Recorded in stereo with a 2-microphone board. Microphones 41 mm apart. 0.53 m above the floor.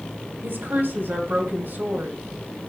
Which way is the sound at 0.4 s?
65° right (ahead or behind).